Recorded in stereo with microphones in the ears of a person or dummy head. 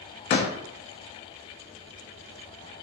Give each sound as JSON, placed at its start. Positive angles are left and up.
{"t": 0.3, "sound": "a door slam", "side_deg": 40, "distance_m": 0.7}